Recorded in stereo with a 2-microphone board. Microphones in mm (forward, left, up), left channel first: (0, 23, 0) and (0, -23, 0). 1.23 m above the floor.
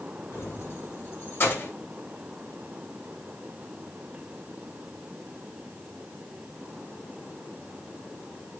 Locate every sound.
0.3 s keys jangling: 65° left (ahead or behind), 8 m; by 1.7 s 50° left (ahead or behind), 7.5 m